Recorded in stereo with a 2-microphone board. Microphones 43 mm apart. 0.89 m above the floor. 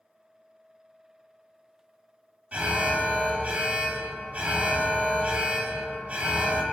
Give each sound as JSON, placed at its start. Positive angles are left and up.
{"t": 2.5, "sound": "an alarm", "side_deg": -35, "distance_m": 1.7}